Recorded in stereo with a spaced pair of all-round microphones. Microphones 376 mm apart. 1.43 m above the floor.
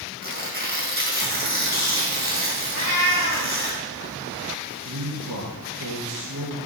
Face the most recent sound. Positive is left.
turn(degrees=-80)